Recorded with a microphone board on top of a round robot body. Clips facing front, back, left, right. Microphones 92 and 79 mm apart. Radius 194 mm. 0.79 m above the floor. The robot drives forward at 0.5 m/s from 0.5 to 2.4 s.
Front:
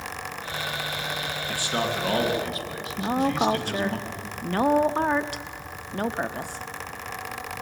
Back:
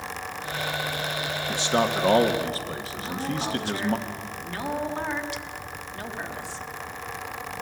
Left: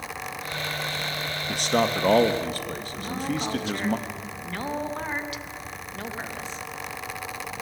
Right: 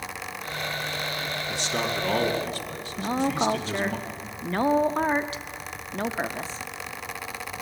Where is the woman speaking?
40° right, 1.0 m.